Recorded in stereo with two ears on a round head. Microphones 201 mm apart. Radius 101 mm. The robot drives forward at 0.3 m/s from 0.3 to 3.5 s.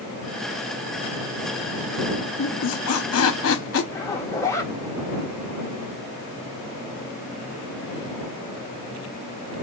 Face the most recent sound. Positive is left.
turn(degrees=15)  # may be behind; listen again after turning